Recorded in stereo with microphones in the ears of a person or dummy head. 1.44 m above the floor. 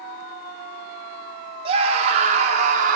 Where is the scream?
40° right (ahead or behind), 4 m; by 3.0 s 55° right (ahead or behind), 4.5 m.